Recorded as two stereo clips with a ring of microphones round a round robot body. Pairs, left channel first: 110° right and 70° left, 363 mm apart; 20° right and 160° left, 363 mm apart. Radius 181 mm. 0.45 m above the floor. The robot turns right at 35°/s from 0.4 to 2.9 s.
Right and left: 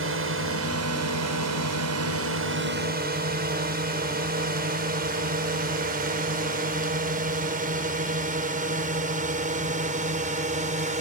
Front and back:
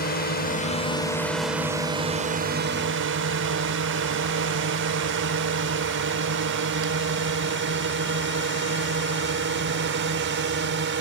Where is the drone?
30° left; by 11.0 s 125° left.